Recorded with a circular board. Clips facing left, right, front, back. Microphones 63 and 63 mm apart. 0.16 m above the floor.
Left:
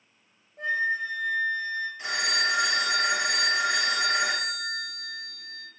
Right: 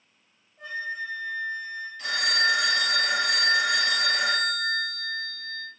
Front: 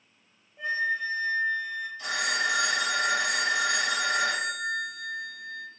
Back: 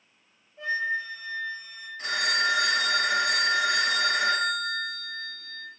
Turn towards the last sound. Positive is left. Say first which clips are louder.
# right 4 dB, back 3 dB
turn(degrees=150)